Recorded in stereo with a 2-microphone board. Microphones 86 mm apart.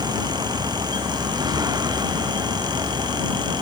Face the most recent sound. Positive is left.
turn(degrees=-50)  # may be behind; listen again after turning